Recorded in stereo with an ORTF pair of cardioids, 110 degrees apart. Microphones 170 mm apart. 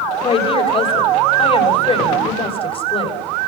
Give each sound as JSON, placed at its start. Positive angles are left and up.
{"t": 0.2, "sound": "a woman speaking", "azimuth_deg": 35, "distance_m": 7.0}